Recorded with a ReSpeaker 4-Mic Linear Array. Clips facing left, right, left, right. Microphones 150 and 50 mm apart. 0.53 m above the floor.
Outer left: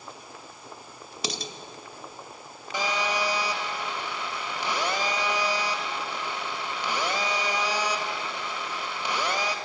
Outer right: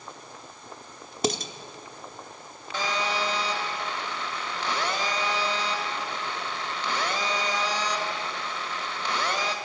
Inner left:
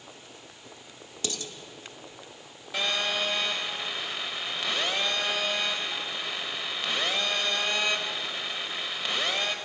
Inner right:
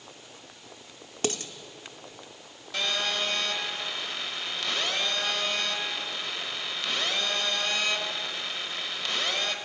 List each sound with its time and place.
1.2 s dishes clattering: 45° right (ahead or behind), 0.8 m
2.7 s a phone buzzing: 15° left (ahead or behind), 1.2 m